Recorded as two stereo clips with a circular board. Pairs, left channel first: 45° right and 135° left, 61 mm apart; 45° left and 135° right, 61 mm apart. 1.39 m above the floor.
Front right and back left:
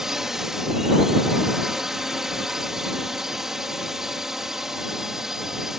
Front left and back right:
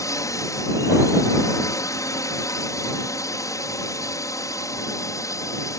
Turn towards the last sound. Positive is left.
turn(degrees=55)